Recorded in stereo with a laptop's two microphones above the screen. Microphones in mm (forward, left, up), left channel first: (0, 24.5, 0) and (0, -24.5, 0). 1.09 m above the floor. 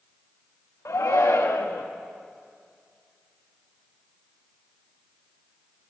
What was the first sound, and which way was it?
A shout, 80° left.